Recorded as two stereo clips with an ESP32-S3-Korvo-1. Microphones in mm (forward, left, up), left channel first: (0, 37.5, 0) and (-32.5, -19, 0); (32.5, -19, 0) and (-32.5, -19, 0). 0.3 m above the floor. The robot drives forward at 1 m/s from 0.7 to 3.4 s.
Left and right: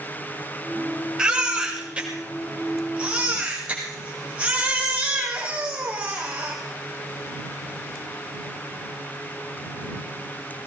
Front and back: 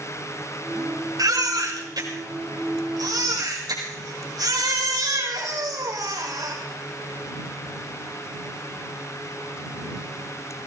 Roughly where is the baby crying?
Behind.